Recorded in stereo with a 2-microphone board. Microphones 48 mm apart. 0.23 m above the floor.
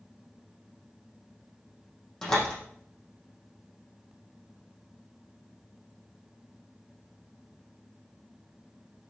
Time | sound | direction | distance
2.2 | a door slam | 15° left (ahead or behind) | 7.5 m